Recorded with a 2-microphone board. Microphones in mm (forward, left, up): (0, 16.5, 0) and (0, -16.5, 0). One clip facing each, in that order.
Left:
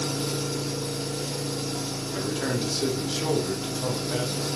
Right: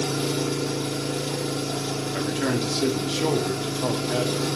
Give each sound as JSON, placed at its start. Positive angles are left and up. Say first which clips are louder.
{"t": 0.0, "sound": "an engine running", "louder": "right 4 dB", "side_deg": -60, "distance_m": 0.7}
{"t": 2.1, "sound": "a man speaking", "louder": "right 2 dB", "side_deg": -20, "distance_m": 0.7}